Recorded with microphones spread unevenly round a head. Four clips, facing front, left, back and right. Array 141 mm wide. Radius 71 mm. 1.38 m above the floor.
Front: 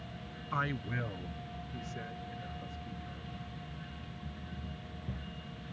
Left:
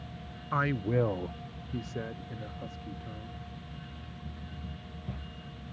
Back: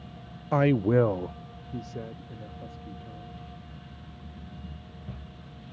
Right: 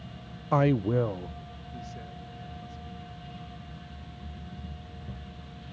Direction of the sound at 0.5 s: 125° right.